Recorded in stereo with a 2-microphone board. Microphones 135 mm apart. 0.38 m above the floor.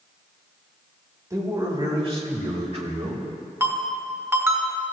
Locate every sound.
1.3 s a man speaking: 25° right (ahead or behind), 2.5 m; by 3.3 s 40° right (ahead or behind), 2.5 m
3.6 s a ringtone: 20° right (ahead or behind), 2 m